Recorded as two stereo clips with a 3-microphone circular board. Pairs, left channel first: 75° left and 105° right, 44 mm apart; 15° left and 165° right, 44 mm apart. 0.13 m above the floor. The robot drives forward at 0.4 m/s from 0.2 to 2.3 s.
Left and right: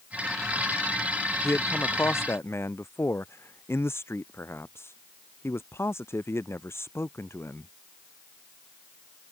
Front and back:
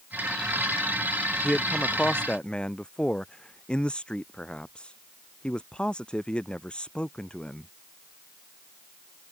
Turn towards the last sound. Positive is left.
turn(degrees=85)